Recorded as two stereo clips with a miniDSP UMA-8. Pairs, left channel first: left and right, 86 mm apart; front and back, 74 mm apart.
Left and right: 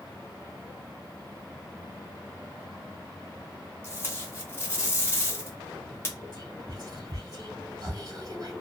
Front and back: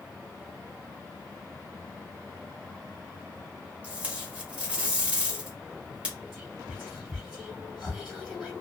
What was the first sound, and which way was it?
Tape being pulled, 120° left.